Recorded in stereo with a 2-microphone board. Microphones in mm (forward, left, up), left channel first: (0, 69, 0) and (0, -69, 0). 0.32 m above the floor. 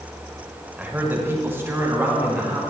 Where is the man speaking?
15° right (ahead or behind), 1.2 m; by 2.6 s 20° right (ahead or behind), 3.5 m.